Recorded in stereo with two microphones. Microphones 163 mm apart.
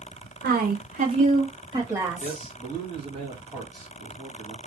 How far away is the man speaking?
About 1.6 m.